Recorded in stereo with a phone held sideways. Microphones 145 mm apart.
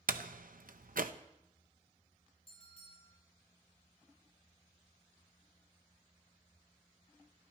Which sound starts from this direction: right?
A door slam, at 0.1 s.